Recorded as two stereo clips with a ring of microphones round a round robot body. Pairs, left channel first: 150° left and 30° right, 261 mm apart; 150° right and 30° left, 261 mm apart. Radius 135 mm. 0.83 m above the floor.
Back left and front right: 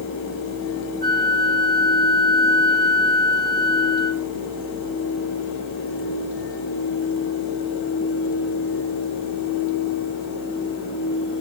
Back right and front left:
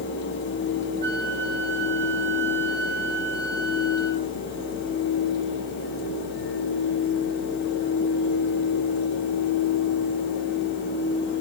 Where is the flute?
40° right, 1.9 m.